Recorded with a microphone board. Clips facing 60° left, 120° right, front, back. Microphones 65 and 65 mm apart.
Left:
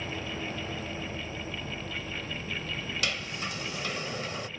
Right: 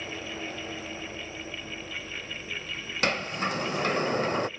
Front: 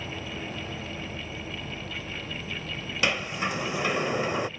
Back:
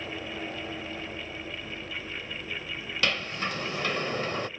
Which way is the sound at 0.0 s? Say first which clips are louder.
Left 1 dB, even; 10° left.